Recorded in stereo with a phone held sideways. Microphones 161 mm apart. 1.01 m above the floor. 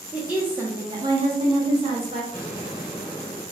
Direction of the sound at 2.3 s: 25° right (ahead or behind).